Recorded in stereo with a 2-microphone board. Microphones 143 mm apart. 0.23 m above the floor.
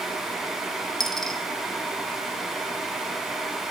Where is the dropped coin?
5° left (ahead or behind), 1.1 m.